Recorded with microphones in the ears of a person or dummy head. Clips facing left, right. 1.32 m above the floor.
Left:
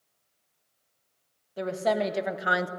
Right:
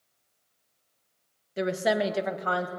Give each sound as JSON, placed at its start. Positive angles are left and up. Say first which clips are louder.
{"t": 1.6, "sound": "a woman speaking", "louder": "right 1 dB", "side_deg": -25, "distance_m": 1.3}